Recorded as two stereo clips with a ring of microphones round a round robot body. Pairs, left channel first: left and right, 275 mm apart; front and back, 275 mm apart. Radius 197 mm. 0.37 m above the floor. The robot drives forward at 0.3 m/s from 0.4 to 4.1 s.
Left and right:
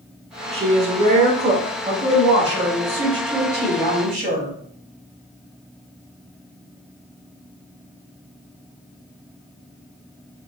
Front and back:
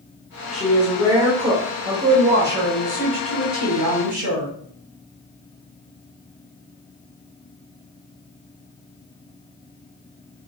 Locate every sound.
0.5 s a woman speaking: 90° right, 0.8 m; by 4.5 s 165° right, 1.4 m